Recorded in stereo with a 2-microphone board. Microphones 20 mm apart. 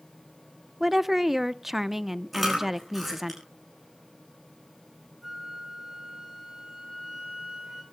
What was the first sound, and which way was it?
A woman speaking, 20° right (ahead or behind).